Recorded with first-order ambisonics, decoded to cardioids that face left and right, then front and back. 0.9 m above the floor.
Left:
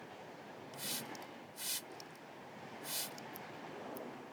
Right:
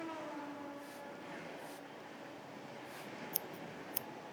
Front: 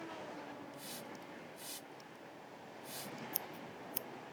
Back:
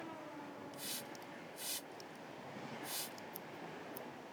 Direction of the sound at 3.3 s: 50° right.